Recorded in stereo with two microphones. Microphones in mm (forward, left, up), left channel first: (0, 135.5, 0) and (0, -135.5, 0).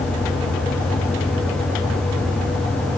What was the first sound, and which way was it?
Only background noise.